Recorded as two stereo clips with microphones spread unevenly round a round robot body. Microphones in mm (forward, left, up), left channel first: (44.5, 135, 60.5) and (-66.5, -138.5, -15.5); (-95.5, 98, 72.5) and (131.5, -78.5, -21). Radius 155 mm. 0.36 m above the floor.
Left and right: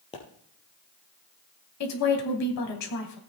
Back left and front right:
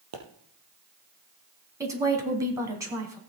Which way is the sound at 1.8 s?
30° left.